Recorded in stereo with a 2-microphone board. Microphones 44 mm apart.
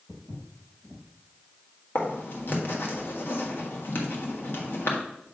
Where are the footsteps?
30° left (ahead or behind), 1.9 m.